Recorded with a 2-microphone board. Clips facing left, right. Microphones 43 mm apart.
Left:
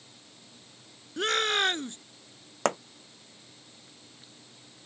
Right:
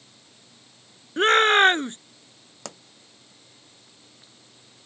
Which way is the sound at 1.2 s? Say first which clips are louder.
Right 10 dB; 40° right (ahead or behind).